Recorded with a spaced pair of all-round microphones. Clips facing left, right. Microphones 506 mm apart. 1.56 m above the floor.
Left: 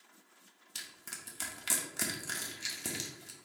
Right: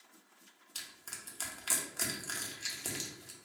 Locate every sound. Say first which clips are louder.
0.8 s crushing: left 2 dB; 45° left (ahead or behind), 0.7 m